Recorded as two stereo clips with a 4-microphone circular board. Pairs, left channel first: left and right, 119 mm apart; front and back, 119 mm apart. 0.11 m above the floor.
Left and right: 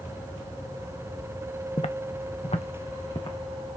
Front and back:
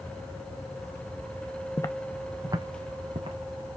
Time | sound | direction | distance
1.8 | footsteps | 50° left | 0.6 m